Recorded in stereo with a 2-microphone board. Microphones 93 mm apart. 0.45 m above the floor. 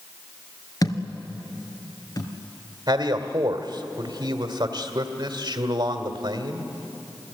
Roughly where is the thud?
Left.